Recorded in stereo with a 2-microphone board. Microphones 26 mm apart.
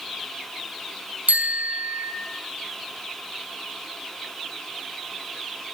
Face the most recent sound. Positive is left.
turn(degrees=-85)